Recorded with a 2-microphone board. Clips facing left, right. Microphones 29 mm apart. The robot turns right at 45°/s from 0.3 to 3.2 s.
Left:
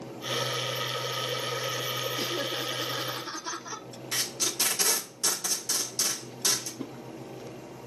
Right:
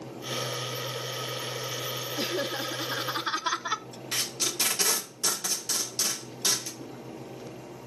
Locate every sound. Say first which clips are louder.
2.2 s laughter: right 1 dB; 155° right, 0.6 m; by 3.9 s 110° right, 0.6 m
4.1 s tape being pulled: even; 25° right (ahead or behind), 2 m
6.8 s a whoosh: left 3 dB; 85° left, 0.9 m